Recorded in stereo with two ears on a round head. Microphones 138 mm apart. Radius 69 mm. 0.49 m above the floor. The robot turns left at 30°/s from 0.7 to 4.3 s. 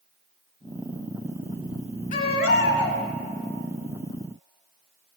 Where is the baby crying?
60° left (ahead or behind), 1.8 m; by 3.0 s 90° left, 1.8 m.